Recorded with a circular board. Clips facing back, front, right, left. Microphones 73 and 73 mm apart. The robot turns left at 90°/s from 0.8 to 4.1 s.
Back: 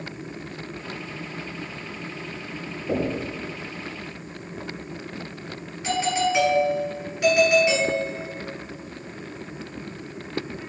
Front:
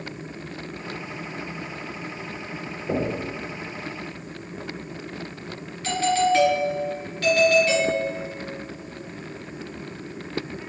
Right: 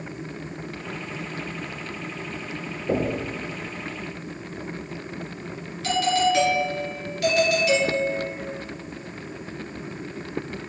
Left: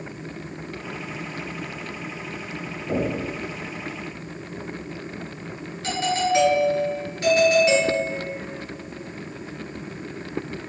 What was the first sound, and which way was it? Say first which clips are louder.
Knocking: even, right 1 dB; 90° right.